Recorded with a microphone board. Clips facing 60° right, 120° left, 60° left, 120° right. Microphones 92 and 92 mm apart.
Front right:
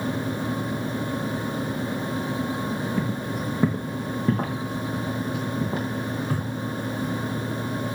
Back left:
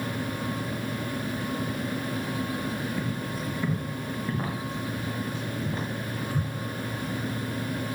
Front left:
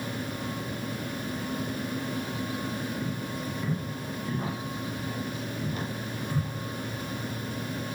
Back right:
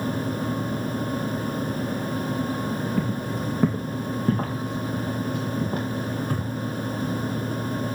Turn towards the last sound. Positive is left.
turn(degrees=-80)